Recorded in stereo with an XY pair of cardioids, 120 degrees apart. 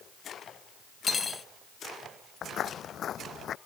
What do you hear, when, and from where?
1.1 s cutlery clinking: 30° left
2.4 s footsteps: 55° left